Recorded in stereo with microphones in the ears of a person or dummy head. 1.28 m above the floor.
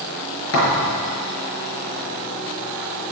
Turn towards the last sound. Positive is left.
turn(degrees=80)